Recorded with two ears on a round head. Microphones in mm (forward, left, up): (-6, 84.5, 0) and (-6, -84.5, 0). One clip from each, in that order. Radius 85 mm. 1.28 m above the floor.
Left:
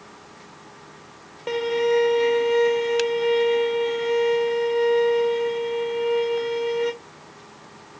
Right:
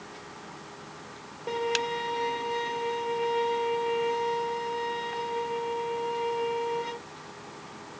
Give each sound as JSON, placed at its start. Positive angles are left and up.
{"t": 1.5, "sound": "a violin", "side_deg": 65, "distance_m": 0.5}